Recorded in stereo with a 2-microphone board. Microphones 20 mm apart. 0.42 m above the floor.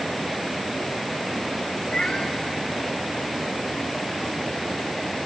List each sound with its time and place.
1.9 s a cat meowing: 40° left (ahead or behind), 2.5 m